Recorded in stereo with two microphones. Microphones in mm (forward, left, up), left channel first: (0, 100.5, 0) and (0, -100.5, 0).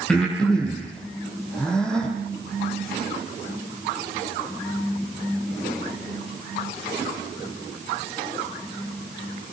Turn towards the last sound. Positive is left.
turn(degrees=5)  # may be behind; listen again after turning